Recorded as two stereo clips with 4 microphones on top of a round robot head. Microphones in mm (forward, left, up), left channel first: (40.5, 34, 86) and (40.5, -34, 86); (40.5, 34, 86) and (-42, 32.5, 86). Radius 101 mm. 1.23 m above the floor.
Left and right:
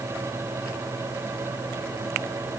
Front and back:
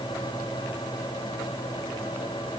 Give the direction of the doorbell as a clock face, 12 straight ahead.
No doorbell in this recording.